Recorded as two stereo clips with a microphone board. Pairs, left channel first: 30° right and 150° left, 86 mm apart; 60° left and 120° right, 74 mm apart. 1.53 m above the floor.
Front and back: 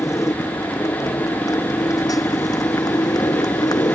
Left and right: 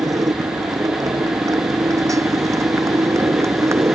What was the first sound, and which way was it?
A motorcycle, 80° right.